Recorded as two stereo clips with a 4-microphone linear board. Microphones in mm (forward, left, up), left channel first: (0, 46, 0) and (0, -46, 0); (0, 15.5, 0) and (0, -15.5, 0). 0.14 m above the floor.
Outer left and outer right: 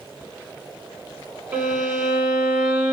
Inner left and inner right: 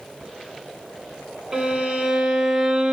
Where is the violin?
25° right (ahead or behind), 1.1 m.